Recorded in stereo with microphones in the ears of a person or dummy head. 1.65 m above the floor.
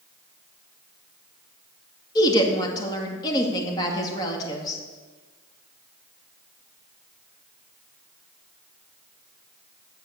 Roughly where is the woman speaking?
Left.